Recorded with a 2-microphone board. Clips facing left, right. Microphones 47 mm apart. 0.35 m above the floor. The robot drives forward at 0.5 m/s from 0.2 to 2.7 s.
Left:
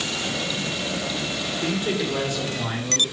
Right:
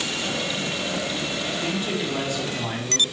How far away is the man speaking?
About 3.5 m.